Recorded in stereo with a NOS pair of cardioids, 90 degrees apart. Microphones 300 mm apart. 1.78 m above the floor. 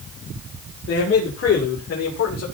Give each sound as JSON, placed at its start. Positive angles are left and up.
{"t": 0.9, "sound": "a man speaking", "azimuth_deg": 45, "distance_m": 6.5}